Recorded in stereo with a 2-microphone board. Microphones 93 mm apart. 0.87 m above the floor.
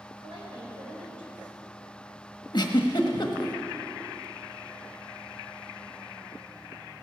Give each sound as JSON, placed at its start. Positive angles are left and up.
{"t": 0.2, "sound": "a woman speaking", "side_deg": -70, "distance_m": 4.5}
{"t": 2.5, "sound": "a giggle", "side_deg": 50, "distance_m": 1.2}